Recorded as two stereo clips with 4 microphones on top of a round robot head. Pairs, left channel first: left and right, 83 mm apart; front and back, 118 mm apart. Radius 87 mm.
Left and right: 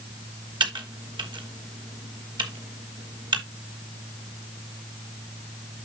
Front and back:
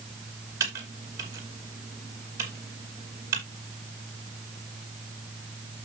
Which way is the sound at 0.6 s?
110° right.